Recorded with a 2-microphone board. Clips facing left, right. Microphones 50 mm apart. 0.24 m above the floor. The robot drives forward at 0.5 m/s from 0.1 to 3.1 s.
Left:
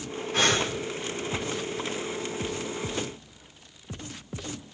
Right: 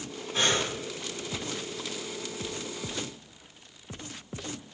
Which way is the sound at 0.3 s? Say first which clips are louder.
Left 3 dB; 70° left (ahead or behind).